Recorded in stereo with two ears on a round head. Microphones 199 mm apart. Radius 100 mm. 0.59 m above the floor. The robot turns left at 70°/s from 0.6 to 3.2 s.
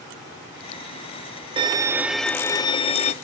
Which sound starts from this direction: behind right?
A violin, at 1.6 s.